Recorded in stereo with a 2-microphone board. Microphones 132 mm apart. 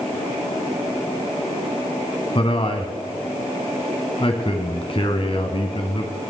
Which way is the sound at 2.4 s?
45° left (ahead or behind).